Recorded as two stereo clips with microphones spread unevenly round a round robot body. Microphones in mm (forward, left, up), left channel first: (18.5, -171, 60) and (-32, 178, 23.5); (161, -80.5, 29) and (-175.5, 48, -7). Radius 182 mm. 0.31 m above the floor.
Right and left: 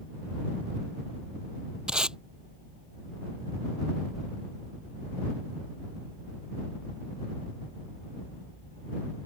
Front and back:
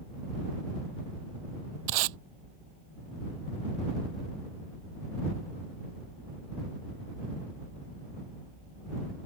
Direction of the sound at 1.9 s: 175° right.